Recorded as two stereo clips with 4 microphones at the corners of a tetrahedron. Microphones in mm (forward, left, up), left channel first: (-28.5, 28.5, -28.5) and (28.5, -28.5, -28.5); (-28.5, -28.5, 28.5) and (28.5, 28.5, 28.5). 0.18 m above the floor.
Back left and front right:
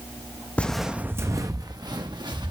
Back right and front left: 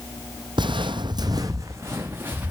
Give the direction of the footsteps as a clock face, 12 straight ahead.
10 o'clock.